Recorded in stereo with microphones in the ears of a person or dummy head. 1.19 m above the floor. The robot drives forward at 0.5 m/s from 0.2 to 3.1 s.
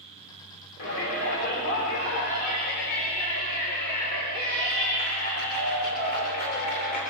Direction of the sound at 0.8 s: 65° left (ahead or behind).